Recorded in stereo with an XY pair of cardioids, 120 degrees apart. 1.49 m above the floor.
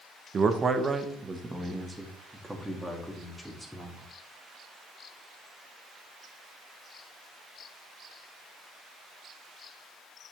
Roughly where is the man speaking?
Ahead right.